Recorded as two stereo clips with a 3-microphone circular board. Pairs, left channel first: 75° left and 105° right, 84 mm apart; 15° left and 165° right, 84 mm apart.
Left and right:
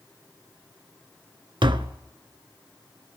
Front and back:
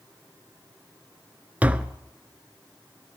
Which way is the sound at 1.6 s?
95° right.